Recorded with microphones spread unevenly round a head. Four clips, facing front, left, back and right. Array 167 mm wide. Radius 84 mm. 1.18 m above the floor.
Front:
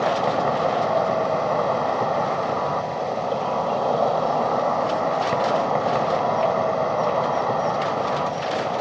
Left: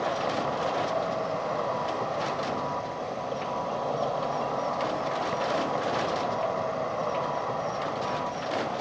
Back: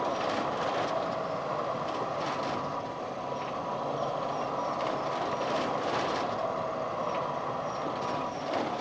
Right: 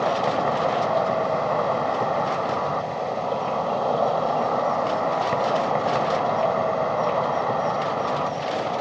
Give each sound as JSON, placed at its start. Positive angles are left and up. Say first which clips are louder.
{"t": 0.0, "sound": "an insect", "louder": "right 6 dB, front 9 dB", "azimuth_deg": -35}